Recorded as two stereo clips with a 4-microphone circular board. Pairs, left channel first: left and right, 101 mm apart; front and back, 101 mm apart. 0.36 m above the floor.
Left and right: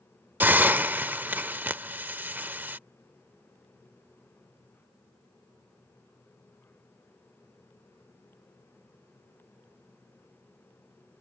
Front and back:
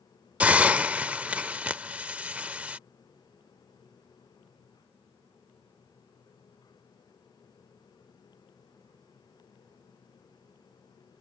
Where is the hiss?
125° right.